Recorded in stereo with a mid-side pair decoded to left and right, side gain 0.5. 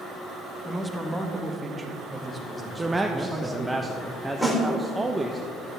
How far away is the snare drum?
About 2.5 m.